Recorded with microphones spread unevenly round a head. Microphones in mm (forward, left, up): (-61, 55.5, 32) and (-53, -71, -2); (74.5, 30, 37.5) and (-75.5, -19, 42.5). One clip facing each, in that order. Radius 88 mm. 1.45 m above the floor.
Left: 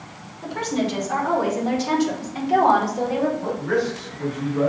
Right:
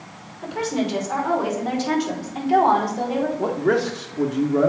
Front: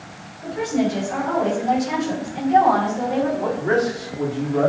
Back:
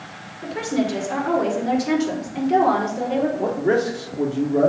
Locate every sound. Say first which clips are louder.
0.4 s a woman speaking: even, front 1 dB; 170° right, 3 m; by 3.3 s 175° left, 4.5 m
3.4 s a man speaking: right 3 dB, back 1 dB; 100° right, 1.0 m